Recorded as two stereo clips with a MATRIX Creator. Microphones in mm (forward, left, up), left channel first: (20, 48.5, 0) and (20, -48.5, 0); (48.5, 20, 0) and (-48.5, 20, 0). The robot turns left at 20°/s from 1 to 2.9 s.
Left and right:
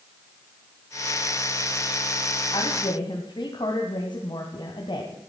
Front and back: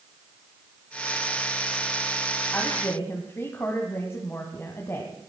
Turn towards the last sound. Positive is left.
turn(degrees=60)